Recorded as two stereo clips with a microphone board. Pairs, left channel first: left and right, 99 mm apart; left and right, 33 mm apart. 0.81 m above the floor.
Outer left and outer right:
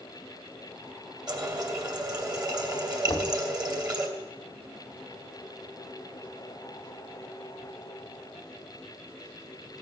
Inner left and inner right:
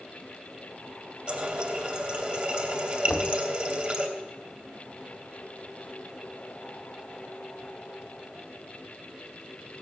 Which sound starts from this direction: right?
A running tap, at 1.3 s.